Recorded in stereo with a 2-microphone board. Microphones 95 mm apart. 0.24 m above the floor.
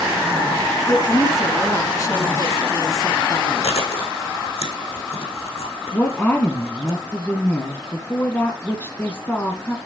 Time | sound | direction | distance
0.9 | a woman speaking | 35° left (ahead or behind) | 2 m
3.6 | chewing | 85° left | 5 m
5.9 | a woman speaking | 15° left (ahead or behind) | 1.9 m